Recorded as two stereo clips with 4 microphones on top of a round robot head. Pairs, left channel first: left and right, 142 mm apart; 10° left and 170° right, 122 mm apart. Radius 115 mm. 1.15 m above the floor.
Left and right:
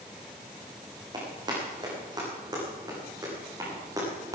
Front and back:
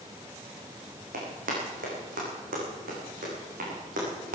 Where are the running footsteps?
155° right, 4.5 m; by 4.4 s 160° right, 6 m.